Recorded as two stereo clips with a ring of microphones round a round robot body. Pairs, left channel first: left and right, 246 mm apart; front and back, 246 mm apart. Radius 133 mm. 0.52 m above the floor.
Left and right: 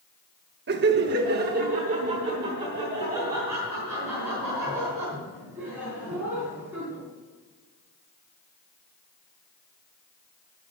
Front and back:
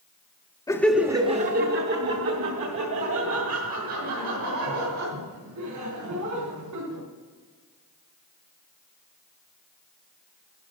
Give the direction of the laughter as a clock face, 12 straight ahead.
2 o'clock.